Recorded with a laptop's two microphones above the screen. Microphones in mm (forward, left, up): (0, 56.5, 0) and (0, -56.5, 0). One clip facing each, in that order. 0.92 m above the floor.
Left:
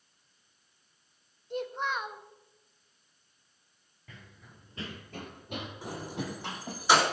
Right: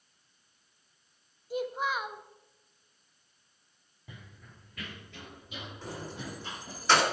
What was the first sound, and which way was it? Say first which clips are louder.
A child speaking: right 1 dB; 5° right (ahead or behind).